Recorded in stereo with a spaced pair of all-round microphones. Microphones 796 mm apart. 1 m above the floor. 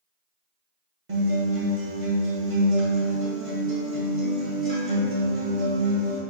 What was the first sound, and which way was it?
A guitar, 40° right (ahead or behind).